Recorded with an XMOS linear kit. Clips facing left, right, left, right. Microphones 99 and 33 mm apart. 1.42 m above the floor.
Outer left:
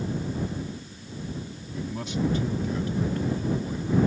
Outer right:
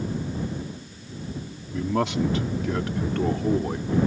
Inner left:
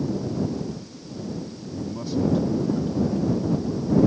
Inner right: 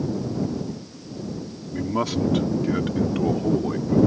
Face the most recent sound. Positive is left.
turn(degrees=-65)  # may be behind; listen again after turning